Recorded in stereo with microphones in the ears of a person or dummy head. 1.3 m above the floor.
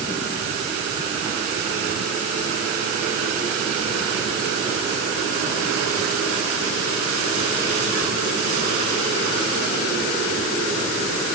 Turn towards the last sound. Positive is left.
No sound to turn to.